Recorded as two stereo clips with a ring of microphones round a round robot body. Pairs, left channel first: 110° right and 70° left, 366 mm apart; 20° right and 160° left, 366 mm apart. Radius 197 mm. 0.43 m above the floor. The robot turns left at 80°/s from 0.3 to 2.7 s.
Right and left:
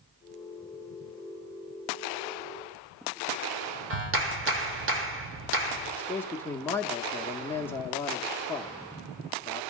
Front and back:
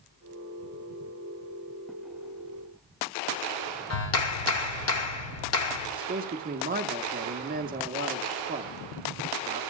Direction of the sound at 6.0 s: 170° left.